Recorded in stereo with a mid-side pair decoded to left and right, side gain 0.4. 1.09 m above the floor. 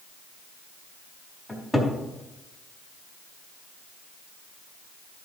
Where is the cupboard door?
15° left, 4 m.